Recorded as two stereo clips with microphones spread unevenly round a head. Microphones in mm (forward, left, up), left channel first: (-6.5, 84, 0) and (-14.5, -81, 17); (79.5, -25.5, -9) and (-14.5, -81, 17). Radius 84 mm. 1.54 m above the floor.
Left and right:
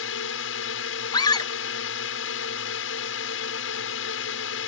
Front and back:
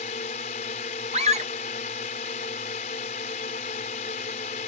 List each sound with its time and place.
0.0 s a drone: 80° left
1.1 s a scream: 155° left